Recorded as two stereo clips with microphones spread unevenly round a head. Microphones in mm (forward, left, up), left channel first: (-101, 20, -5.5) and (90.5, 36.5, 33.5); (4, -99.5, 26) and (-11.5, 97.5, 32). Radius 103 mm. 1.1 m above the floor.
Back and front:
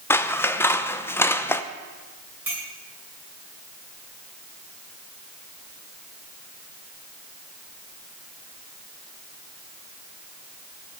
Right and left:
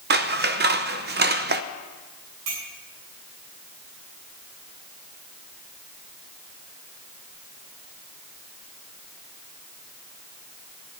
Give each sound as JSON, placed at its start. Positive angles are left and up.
{"t": 0.1, "sound": "scissors", "azimuth_deg": 120, "distance_m": 0.8}
{"t": 2.5, "sound": "a clink", "azimuth_deg": 85, "distance_m": 7.0}